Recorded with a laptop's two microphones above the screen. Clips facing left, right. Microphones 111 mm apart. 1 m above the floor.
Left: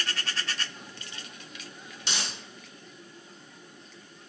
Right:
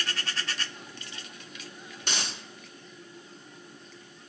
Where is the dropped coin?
50° right (ahead or behind), 0.7 m.